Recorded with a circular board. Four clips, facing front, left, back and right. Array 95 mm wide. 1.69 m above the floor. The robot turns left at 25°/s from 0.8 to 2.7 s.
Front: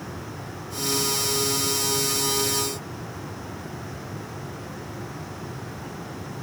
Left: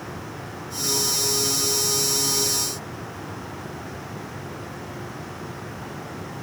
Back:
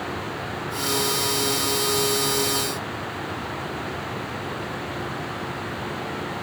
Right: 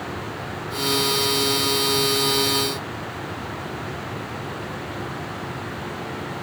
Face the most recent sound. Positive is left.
No sound to turn to.